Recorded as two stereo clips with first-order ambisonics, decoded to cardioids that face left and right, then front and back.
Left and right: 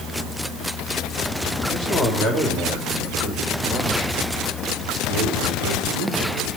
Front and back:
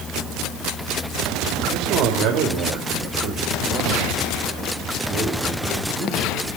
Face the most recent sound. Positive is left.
turn(degrees=-105)